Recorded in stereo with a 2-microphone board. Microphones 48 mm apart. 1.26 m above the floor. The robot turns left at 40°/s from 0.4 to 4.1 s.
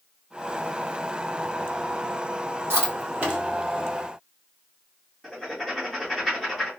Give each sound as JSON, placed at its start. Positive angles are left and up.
{"t": 2.7, "sound": "chewing", "side_deg": -60, "distance_m": 1.9}
{"t": 5.2, "sound": "writing", "side_deg": 5, "distance_m": 1.3}